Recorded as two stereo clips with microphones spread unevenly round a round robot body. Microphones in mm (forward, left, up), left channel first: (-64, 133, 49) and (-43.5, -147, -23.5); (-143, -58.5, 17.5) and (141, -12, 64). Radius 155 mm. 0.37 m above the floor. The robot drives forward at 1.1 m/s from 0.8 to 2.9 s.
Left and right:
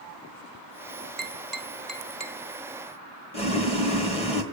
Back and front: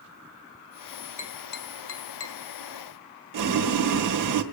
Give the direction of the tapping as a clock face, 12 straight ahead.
5 o'clock.